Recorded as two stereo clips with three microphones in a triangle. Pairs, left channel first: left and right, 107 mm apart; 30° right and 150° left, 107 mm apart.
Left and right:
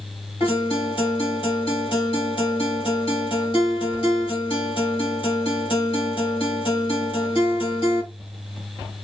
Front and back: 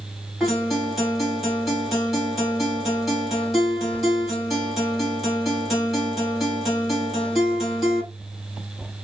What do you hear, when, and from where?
0.4 s a guitar: 60° left, 1.8 m